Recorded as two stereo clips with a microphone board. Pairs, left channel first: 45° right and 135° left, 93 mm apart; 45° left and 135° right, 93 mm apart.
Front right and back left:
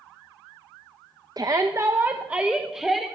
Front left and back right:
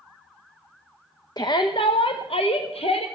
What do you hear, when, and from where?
1.4 s a shout: 90° left, 0.8 m; by 3.1 s 45° left, 1.4 m